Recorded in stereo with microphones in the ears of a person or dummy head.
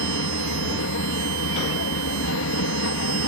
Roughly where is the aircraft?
Left.